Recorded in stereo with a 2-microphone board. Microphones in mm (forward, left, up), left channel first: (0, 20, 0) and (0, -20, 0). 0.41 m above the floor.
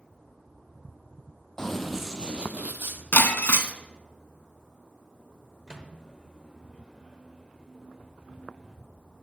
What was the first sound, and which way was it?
Running footsteps, 15° left (ahead or behind).